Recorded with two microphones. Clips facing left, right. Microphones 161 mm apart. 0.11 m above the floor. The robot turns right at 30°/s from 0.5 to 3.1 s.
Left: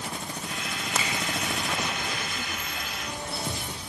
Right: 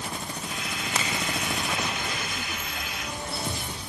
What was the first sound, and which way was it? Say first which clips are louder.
A finger snap: even; centre (ahead or behind).